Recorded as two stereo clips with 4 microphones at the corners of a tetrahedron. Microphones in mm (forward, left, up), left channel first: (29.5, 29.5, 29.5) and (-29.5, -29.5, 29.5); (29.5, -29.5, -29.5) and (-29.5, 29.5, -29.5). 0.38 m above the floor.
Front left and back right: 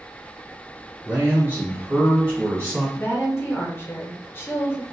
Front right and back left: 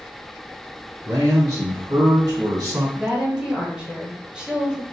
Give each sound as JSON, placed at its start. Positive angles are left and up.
{"t": 1.1, "sound": "a man speaking", "azimuth_deg": 175, "distance_m": 1.5}
{"t": 3.0, "sound": "a woman speaking", "azimuth_deg": 65, "distance_m": 0.8}